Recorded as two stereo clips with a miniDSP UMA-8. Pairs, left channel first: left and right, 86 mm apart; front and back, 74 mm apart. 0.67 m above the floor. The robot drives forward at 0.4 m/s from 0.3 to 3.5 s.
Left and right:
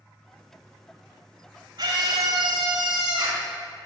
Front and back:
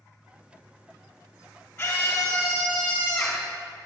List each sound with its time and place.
1.8 s a scream: 70° right, 2.5 m; by 3.5 s 85° right, 2 m